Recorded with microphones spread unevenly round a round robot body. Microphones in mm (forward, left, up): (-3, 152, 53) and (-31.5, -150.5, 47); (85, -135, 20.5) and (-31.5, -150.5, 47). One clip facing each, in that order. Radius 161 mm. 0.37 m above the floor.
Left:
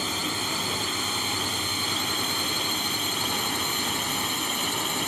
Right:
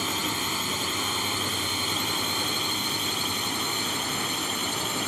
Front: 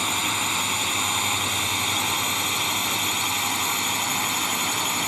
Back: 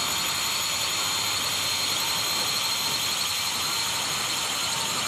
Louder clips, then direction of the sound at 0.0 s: Even, front 5 dB; 10° right.